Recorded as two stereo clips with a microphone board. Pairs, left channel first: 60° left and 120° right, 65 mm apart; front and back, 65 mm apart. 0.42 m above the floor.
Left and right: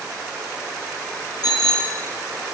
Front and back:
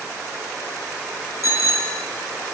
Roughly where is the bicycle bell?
Ahead left.